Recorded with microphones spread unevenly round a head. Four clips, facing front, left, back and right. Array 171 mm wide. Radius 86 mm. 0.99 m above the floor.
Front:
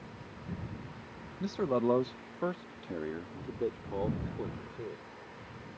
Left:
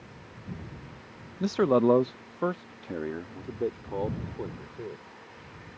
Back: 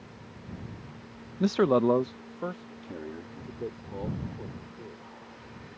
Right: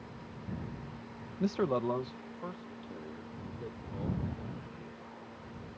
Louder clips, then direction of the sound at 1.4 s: Left 8 dB, back 7 dB; 170° left.